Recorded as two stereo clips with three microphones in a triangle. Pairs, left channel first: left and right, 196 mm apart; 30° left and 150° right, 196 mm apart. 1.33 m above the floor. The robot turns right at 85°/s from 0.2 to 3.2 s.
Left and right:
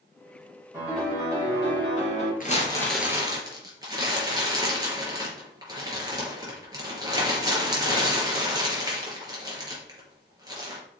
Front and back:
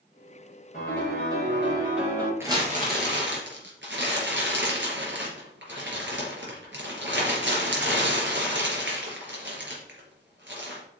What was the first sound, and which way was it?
A piano, 15° right.